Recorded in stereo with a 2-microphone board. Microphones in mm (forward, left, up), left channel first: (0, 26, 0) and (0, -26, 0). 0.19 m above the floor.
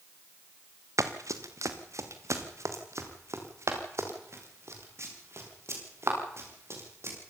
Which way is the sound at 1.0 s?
85° right.